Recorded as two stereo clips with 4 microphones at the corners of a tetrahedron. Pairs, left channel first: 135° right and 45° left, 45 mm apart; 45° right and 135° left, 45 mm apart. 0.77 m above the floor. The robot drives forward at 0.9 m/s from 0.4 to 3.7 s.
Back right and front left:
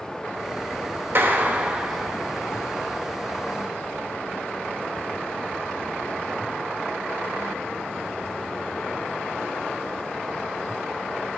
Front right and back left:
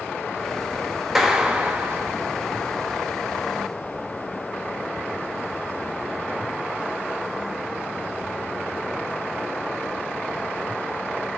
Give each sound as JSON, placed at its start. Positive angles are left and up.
{"t": 1.1, "sound": "a clap", "azimuth_deg": 55, "distance_m": 1.0}